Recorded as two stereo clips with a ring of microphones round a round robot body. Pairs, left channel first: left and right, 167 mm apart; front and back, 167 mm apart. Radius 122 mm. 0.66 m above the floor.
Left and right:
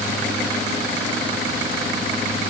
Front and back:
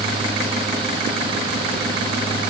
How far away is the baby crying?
No baby crying in this recording.